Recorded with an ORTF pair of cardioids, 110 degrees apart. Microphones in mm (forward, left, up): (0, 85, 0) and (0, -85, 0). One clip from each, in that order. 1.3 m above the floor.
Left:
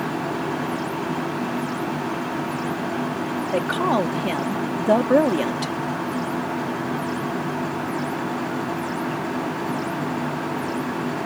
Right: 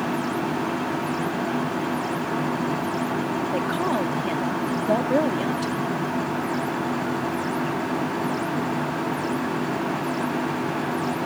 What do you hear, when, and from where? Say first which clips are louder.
3.5 s a woman speaking: left 5 dB; 35° left